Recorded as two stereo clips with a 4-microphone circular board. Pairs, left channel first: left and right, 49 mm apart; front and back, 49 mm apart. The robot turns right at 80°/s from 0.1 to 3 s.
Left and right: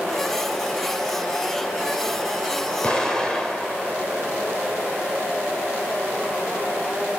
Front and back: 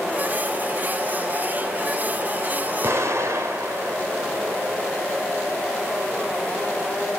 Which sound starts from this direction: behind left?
An explosion, at 2.8 s.